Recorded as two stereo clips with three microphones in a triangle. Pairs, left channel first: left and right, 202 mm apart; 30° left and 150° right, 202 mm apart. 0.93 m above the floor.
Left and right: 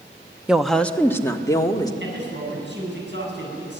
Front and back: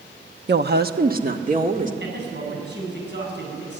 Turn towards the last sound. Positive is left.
turn(degrees=-120)